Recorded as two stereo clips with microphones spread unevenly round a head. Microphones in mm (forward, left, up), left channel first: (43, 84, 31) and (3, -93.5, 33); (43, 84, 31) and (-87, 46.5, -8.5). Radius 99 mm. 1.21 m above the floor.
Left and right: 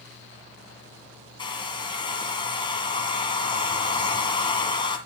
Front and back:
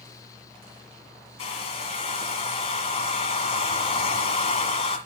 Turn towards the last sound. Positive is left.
turn(degrees=15)